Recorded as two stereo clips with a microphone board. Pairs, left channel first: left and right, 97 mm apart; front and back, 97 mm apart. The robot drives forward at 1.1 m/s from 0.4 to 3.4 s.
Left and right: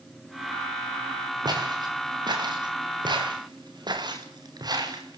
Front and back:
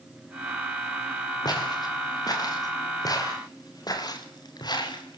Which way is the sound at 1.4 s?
45° right.